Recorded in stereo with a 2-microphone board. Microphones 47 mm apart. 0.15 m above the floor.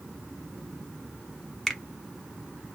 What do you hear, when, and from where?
1.7 s a finger snap: 5° left (ahead or behind), 0.8 m